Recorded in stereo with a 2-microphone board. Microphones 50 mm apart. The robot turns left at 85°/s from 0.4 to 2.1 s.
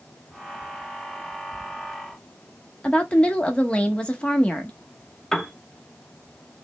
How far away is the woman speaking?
About 0.9 m.